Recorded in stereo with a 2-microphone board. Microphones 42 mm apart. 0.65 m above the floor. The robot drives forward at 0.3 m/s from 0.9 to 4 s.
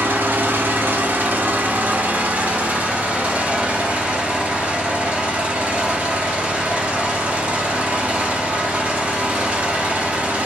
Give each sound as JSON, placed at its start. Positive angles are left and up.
{"t": 0.0, "sound": "an engine running", "side_deg": -55, "distance_m": 1.1}